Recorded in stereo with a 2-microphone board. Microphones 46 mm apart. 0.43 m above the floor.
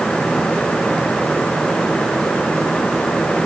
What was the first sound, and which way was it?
Only background noise.